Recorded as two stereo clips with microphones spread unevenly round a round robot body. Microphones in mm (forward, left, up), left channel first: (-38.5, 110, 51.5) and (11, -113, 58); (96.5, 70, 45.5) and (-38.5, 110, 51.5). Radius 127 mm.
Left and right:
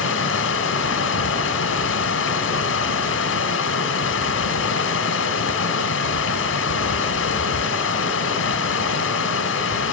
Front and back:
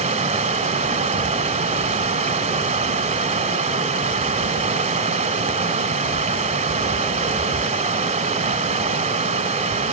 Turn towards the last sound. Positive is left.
turn(degrees=130)